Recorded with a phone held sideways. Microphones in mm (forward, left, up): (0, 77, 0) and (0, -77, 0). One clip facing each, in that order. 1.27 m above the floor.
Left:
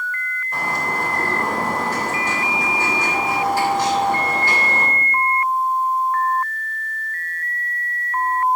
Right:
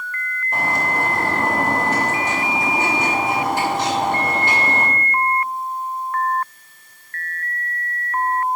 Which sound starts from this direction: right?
A bird, at 0.5 s.